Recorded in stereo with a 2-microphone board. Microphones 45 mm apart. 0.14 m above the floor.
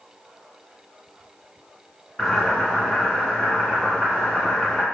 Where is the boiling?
10° left (ahead or behind), 1.8 m.